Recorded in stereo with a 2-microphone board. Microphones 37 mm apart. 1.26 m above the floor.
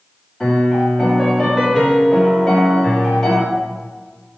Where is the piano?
Centre (ahead or behind), 2.5 m.